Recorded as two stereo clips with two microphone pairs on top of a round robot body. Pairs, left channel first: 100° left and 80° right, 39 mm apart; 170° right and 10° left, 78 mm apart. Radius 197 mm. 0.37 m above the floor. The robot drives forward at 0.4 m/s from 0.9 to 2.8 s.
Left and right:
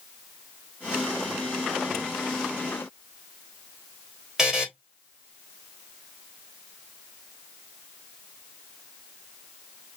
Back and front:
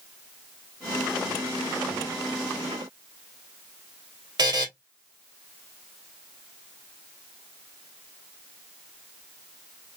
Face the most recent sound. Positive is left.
turn(degrees=0)